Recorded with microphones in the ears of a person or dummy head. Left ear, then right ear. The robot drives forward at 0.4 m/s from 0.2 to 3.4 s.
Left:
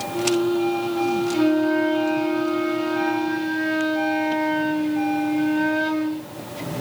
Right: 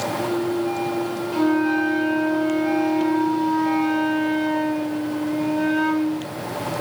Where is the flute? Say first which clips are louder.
Right 2 dB; 15° left (ahead or behind), 1.0 m; by 6.3 s 10° left (ahead or behind), 1.8 m.